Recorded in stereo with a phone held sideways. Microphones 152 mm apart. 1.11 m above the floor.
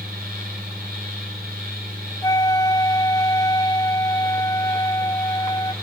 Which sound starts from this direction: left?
A flute, at 2.2 s.